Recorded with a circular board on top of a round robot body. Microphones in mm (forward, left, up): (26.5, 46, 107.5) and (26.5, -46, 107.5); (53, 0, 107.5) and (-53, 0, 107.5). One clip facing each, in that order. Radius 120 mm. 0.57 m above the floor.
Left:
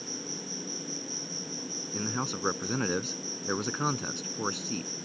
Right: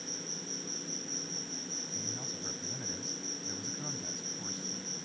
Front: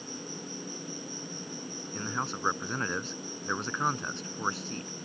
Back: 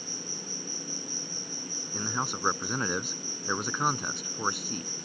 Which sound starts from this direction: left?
A man speaking, at 1.9 s.